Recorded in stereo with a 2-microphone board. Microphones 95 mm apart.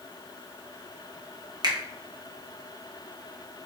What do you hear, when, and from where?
1.6 s a finger snap: 45° right (ahead or behind), 0.9 m